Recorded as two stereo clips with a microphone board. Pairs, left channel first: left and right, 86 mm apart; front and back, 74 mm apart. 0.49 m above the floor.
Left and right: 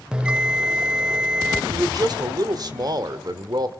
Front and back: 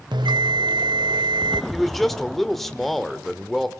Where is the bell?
170° right, 0.5 m.